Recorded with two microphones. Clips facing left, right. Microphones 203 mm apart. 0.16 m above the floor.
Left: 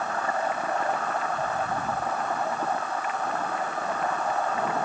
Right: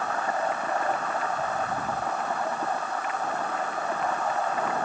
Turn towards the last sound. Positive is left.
No sound to turn to.